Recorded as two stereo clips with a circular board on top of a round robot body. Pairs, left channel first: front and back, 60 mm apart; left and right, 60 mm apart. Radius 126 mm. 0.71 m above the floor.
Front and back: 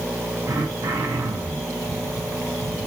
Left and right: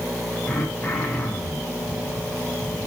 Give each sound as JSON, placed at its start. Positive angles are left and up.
{"t": 0.5, "sound": "throat clearing", "azimuth_deg": 165, "distance_m": 3.5}